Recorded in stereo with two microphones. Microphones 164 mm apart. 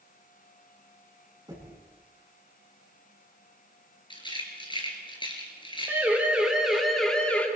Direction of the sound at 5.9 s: 15° right (ahead or behind).